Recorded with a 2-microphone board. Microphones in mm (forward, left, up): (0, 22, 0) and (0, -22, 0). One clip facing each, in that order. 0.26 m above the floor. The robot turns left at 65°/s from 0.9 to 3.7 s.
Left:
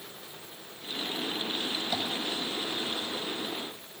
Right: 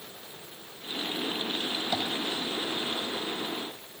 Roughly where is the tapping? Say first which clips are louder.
Right 2 dB; centre.